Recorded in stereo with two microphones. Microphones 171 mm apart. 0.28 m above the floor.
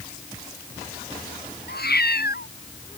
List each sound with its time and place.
1.7 s a cat meowing: 75° left (ahead or behind)